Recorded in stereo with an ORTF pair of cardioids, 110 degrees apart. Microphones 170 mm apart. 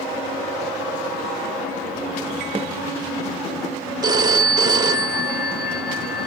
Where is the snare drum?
35° right, 0.9 m.